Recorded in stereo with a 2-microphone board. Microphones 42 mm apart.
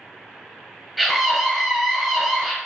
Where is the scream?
Centre (ahead or behind), 1.0 m.